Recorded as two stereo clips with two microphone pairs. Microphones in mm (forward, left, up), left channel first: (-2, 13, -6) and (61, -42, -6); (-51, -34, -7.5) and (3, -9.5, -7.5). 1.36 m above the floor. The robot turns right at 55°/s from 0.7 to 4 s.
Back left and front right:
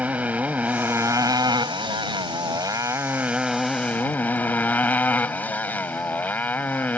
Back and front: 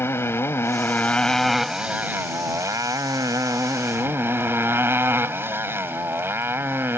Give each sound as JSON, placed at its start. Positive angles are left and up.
{"t": 0.0, "sound": "a motorcycle", "azimuth_deg": -110}